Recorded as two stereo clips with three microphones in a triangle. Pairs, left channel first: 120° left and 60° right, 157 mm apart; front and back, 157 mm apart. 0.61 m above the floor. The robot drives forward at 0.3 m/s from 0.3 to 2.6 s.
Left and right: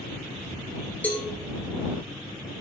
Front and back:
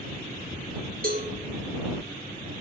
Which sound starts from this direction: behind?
A cowbell, at 1.0 s.